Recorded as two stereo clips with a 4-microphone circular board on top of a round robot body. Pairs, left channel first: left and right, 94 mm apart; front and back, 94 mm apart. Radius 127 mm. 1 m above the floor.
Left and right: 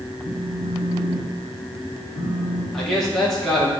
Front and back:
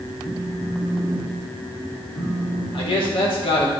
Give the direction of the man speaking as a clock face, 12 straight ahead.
12 o'clock.